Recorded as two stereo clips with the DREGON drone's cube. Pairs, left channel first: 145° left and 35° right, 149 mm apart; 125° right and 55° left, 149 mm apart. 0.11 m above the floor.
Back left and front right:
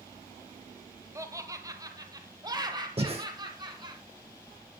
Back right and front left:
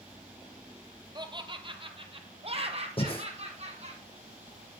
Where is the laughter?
20° left, 1.5 m.